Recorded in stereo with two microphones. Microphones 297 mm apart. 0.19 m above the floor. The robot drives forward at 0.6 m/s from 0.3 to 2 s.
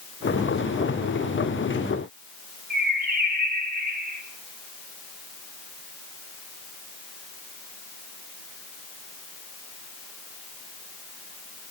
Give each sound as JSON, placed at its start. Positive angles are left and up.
{"t": 2.7, "sound": "a bird", "side_deg": -30, "distance_m": 3.0}